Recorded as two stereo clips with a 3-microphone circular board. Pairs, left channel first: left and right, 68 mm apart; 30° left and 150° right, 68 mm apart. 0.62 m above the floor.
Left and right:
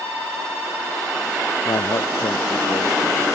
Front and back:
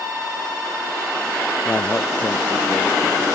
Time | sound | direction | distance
1.6 | a man speaking | 95° left | ?